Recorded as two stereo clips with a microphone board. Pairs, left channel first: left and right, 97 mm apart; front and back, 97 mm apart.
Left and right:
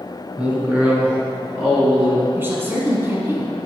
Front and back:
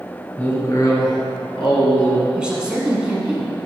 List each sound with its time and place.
0.4 s a man speaking: 40° right, 1.1 m; by 2.2 s 15° right, 3 m
2.4 s a woman speaking: 110° right, 1.1 m